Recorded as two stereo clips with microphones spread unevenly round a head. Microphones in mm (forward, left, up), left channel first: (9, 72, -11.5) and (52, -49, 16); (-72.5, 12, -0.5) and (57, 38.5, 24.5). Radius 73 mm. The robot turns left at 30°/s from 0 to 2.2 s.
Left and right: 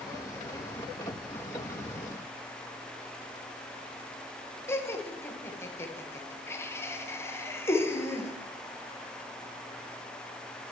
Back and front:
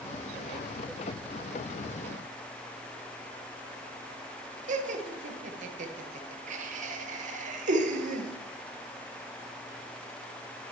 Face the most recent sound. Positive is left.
turn(degrees=40)